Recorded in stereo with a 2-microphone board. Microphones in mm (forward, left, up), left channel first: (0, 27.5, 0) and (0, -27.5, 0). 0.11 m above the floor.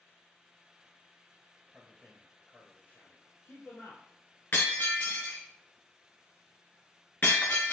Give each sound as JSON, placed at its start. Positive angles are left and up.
{"t": 1.7, "sound": "a man speaking", "side_deg": 5, "distance_m": 1.7}
{"t": 4.5, "sound": "breaking glass", "side_deg": 45, "distance_m": 2.0}